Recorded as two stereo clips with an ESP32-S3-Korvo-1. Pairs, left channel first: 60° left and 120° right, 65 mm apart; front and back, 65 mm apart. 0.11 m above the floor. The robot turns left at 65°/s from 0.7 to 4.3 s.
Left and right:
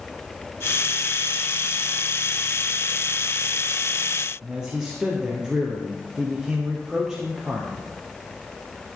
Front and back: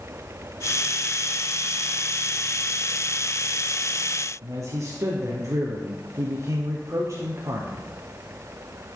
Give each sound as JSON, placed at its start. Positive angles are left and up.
{"t": 4.4, "sound": "a man speaking", "azimuth_deg": 160, "distance_m": 2.5}